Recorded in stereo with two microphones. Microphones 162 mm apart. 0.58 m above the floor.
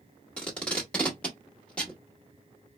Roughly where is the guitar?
I don't hear a guitar.